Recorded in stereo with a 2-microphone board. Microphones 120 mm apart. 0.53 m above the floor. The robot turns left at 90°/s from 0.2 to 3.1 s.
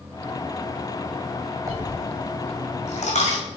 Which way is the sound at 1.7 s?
25° right (ahead or behind).